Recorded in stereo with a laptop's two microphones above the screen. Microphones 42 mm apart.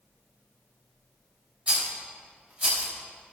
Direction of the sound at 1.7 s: 35° right (ahead or behind).